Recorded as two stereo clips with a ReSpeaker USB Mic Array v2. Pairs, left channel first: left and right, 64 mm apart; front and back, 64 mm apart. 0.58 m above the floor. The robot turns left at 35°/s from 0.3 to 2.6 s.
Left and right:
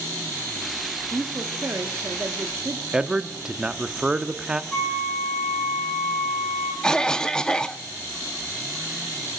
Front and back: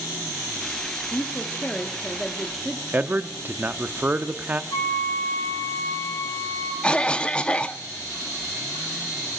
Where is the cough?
30° left, 0.6 m.